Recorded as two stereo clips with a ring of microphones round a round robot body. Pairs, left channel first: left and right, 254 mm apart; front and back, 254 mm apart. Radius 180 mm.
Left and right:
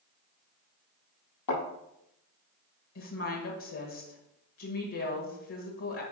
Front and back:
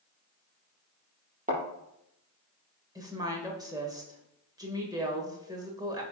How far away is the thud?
About 5 m.